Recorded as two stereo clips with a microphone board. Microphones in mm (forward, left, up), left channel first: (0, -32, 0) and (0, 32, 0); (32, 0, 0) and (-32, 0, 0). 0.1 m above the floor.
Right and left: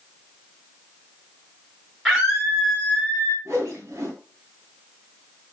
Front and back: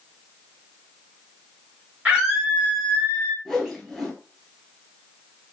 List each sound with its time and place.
2.0 s a scream: 175° right, 1.8 m; by 3.4 s 145° right, 2 m
3.5 s a whoosh: 90° left, 1.1 m